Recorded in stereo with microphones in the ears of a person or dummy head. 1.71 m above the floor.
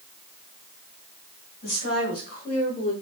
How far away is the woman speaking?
About 3 m.